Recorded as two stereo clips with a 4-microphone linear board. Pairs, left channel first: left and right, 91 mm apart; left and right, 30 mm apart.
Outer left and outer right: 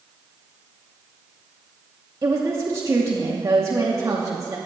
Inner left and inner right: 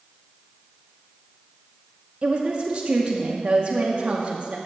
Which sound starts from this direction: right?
A woman speaking, at 2.2 s.